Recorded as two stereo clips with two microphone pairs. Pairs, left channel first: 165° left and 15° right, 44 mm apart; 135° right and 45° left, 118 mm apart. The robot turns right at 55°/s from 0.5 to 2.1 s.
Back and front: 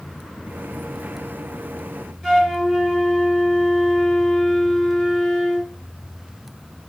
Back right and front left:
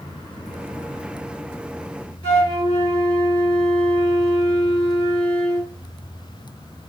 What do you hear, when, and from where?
2.2 s a flute: 80° right, 1.9 m